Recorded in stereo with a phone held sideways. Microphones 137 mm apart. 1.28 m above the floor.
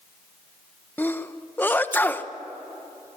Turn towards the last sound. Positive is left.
turn(degrees=15)  # may be behind; listen again after turning